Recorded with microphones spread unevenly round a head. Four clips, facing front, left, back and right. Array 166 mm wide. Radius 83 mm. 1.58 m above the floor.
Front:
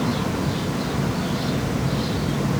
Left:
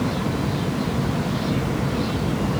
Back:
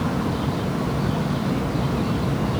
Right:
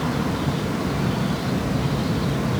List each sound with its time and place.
Only background noise.